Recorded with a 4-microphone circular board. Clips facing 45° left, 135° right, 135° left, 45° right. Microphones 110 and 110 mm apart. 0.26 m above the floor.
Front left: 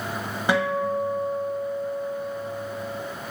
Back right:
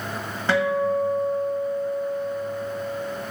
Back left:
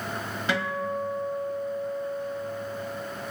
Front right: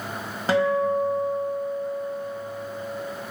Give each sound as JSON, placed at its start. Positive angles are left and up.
{"t": 0.5, "sound": "a guitar", "azimuth_deg": -20, "distance_m": 0.6}